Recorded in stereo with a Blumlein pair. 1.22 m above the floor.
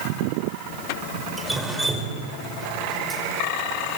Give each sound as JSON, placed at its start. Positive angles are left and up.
{"t": 1.4, "sound": "dripping", "azimuth_deg": -5, "distance_m": 5.0}